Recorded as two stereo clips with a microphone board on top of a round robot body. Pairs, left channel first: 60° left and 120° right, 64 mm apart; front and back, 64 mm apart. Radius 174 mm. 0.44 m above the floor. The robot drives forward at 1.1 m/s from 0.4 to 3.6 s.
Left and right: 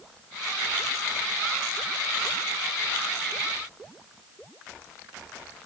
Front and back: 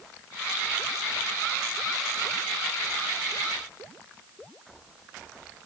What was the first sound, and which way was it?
Only background noise.